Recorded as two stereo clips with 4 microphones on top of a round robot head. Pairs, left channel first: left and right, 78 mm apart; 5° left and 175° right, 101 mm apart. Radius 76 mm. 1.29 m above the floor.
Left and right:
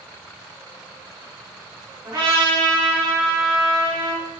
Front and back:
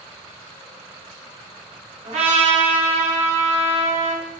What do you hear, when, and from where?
2.0 s a trumpet: 150° right, 1.1 m